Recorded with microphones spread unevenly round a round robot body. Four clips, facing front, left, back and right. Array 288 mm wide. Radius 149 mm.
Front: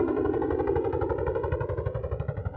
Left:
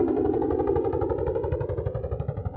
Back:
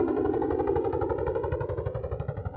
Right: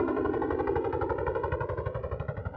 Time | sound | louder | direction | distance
0.0 | a helicopter | left 5 dB, even | 90° left | ?